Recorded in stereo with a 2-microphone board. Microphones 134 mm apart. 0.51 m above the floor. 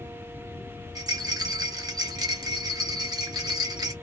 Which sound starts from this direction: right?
A rattle, at 0.9 s.